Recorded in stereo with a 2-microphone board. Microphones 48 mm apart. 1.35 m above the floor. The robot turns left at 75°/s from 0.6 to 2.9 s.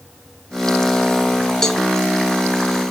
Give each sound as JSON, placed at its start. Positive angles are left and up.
{"t": 1.6, "sound": "a cowbell", "side_deg": 10, "distance_m": 0.9}